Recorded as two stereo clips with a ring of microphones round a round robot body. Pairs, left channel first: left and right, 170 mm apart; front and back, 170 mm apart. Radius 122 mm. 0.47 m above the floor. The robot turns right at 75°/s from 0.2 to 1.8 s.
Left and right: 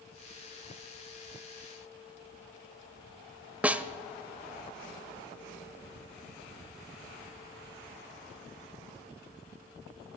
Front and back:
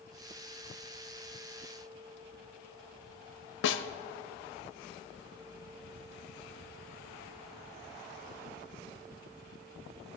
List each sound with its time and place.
3.6 s a snare drum: 5° right, 0.5 m